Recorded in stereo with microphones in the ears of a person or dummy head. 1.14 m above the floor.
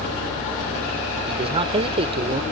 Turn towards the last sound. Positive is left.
turn(degrees=-30)  # may be behind; listen again after turning